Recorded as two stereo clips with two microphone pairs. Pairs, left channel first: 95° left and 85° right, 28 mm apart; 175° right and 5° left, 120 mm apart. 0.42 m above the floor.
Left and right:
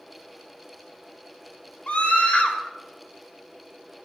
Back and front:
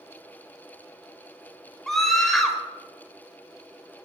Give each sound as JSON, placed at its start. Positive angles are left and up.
{"t": 1.9, "sound": "a scream", "azimuth_deg": 100, "distance_m": 2.0}